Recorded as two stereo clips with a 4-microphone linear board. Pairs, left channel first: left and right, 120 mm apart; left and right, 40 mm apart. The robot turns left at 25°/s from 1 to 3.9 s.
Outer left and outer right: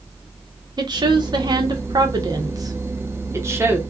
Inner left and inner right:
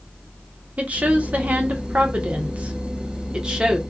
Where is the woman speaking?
80° right, 0.7 m; by 3.8 s 150° right, 0.7 m.